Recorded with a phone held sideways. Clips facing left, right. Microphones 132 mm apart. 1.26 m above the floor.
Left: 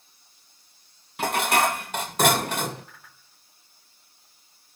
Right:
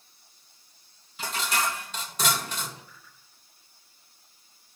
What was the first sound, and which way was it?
Dishes clattering, 60° left (ahead or behind).